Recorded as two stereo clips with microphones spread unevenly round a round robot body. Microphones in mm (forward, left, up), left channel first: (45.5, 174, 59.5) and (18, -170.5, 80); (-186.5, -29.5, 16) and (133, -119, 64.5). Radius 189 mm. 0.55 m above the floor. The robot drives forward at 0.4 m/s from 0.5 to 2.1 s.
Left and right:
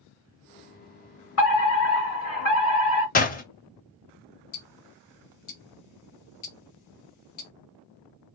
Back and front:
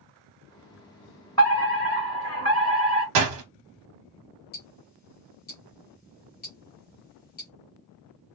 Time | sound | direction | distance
1.4 | a fire alarm | 100° left | 2 m
3.1 | a door slam | 20° left | 0.6 m
4.5 | ticking | 110° left | 0.8 m